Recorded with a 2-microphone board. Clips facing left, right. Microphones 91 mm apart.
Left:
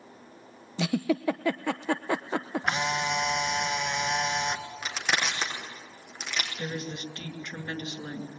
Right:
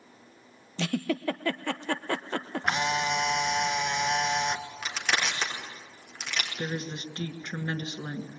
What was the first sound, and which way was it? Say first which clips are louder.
A giggle: left 3 dB; 10° left (ahead or behind).